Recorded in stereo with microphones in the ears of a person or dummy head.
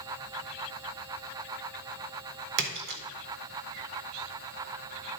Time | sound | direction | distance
2.6 | a splash | 60° right (ahead or behind) | 1.4 m